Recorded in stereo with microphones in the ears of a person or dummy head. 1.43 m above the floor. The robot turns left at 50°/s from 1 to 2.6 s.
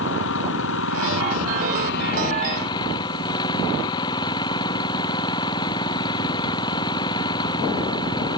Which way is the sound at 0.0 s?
110° left.